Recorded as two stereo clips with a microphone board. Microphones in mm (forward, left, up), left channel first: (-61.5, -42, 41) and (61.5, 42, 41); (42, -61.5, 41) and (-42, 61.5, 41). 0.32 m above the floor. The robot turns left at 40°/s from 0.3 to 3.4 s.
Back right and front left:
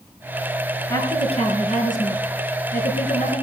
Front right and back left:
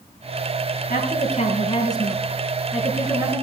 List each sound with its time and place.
0.9 s a woman speaking: 80° right, 4 m; by 3.4 s straight behind, 4 m